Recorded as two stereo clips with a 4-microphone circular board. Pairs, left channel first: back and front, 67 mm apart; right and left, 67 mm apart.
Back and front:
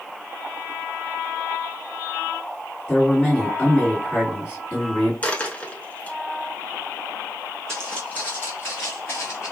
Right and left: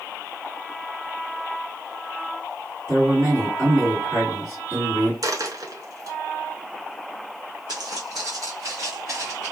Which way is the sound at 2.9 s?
120° left.